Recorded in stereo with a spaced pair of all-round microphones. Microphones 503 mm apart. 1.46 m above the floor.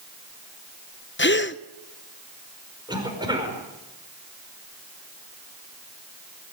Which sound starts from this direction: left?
A gasp, at 1.2 s.